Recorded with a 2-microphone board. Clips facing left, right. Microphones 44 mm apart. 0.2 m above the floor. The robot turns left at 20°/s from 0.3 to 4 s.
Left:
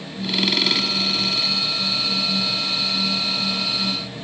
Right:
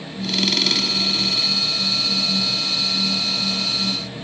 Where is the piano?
No piano in this recording.